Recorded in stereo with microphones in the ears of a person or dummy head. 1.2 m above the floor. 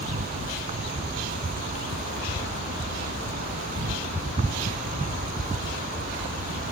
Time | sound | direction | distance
0.0 | an insect | 40° right (ahead or behind) | ?